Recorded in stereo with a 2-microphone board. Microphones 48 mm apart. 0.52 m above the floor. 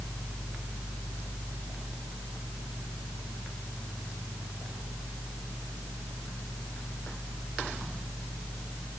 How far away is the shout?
No shout in this recording.